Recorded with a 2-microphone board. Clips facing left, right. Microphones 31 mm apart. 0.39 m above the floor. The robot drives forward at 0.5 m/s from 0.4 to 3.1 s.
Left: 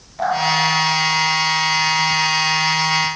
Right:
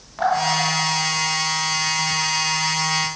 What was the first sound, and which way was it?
Dripping, 50° right (ahead or behind).